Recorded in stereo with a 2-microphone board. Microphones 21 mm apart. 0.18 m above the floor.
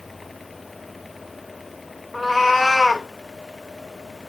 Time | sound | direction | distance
2.1 | a cat meowing | 5° right (ahead or behind) | 2 m